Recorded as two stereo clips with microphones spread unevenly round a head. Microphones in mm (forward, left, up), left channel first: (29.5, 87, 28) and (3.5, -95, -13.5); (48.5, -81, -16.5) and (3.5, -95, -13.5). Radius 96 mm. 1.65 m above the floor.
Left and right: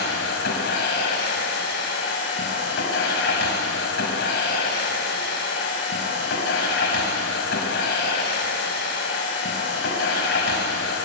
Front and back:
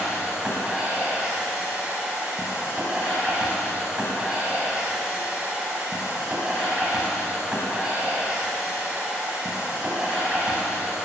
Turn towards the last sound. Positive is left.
turn(degrees=115)